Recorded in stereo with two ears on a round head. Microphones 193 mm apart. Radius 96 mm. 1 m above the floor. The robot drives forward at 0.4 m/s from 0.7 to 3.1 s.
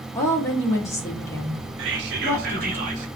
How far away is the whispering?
About 0.6 m.